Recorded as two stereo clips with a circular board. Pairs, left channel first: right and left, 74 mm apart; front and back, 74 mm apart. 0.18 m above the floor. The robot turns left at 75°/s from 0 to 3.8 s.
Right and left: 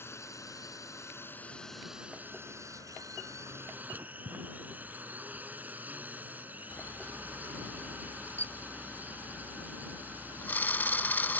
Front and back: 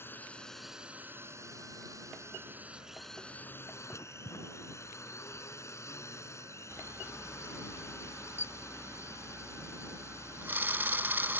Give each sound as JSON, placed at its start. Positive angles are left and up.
{"t": 0.0, "sound": "a drone", "azimuth_deg": -45}
{"t": 3.9, "sound": "writing", "azimuth_deg": 35}
{"t": 6.7, "sound": "a camera shutter", "azimuth_deg": -135}